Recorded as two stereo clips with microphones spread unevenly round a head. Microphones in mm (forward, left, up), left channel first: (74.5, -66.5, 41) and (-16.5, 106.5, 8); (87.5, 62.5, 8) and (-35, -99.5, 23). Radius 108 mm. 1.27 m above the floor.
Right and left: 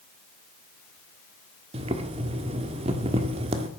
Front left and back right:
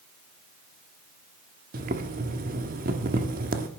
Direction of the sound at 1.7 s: 175° right.